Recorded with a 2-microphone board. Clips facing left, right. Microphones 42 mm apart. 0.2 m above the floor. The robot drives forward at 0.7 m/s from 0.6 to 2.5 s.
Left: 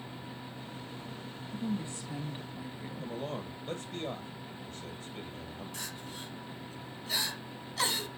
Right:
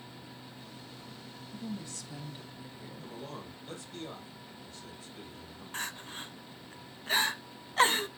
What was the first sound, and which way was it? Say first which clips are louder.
A woman speaking: left 5 dB; 30° left (ahead or behind).